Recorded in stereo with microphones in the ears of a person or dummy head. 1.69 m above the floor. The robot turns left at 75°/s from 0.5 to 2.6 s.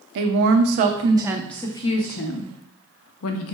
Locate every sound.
0.1 s a woman speaking: 105° right, 0.5 m; by 3.5 s 95° left, 0.5 m